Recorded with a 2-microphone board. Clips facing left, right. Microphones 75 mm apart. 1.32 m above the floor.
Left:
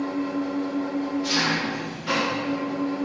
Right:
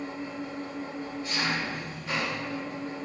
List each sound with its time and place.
0.0 s an engine running: 70° left (ahead or behind), 1.4 m